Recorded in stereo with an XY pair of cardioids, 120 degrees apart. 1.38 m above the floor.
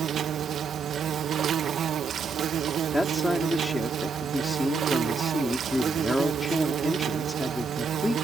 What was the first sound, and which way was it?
An insect, 50° right.